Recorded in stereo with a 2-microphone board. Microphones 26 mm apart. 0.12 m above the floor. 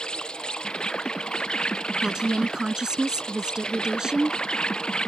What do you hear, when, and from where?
0.0 s an insect: 35° left (ahead or behind)
2.0 s a woman speaking: 25° right (ahead or behind)